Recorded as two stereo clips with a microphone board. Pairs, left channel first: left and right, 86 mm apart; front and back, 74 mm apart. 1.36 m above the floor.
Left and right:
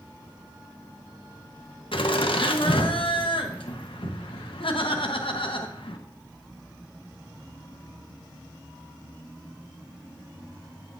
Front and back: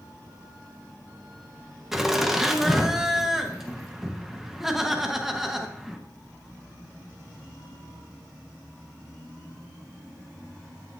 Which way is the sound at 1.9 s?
95° left.